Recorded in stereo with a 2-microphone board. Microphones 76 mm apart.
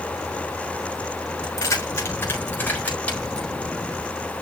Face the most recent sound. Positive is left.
turn(degrees=10)  # may be behind; listen again after turning